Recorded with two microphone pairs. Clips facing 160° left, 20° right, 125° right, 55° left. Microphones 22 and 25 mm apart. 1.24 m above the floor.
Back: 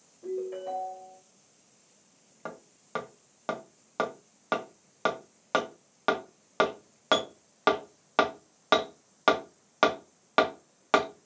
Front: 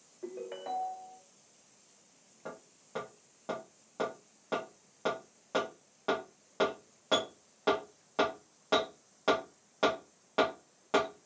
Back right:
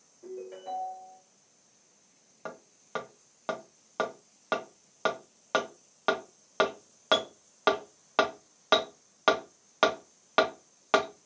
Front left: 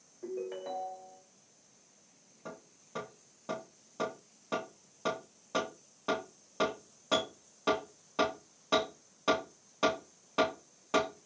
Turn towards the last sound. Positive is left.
turn(degrees=-160)